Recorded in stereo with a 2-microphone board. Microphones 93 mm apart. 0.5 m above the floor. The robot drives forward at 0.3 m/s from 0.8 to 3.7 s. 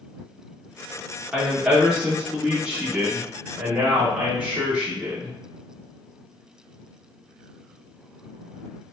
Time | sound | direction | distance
1.3 | a woman speaking | 10° right (ahead or behind) | 0.9 m